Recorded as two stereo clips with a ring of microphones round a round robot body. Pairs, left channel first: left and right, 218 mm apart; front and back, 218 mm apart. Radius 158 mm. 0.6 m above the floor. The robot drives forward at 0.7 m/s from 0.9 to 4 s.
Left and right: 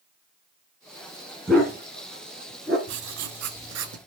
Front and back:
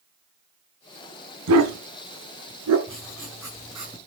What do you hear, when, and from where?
1.5 s a dog barking: straight behind, 1.6 m
2.9 s writing: 85° right, 1.7 m; by 4.0 s 110° right, 1.8 m